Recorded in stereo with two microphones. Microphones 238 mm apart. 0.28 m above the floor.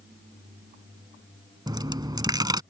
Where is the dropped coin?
15° right (ahead or behind).